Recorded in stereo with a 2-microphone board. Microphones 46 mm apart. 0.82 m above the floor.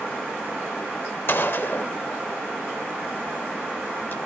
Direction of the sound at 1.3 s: 55° left (ahead or behind).